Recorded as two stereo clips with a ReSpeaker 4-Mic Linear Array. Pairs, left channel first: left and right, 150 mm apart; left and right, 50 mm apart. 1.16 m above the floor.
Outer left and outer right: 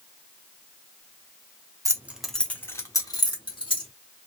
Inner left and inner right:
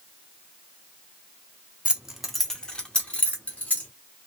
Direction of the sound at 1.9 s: 20° right (ahead or behind).